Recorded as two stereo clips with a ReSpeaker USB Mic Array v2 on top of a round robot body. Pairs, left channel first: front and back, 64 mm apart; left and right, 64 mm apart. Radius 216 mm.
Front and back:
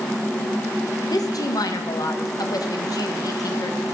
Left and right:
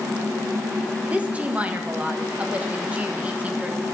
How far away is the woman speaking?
About 1.9 m.